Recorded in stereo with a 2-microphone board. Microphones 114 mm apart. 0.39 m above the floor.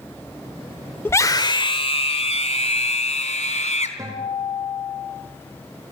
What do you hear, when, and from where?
1.1 s a scream: 20° left (ahead or behind), 0.9 m; by 3.9 s 75° left (ahead or behind), 3 m
4.0 s a guitar: 30° right (ahead or behind), 7 m